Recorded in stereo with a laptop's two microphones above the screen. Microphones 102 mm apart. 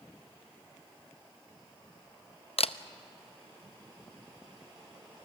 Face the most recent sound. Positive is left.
turn(degrees=70)  # may be behind; listen again after turning